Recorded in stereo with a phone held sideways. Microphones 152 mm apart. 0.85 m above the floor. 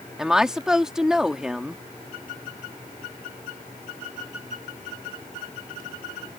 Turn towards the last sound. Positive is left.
turn(degrees=-5)  # may be behind; listen again after turning